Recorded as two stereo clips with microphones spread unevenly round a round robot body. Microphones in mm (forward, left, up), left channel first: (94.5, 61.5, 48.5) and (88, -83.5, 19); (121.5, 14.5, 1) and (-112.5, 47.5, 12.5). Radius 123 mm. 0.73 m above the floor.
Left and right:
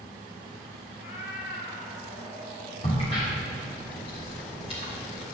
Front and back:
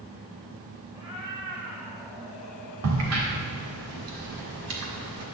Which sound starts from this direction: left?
A cat meowing, at 0.9 s.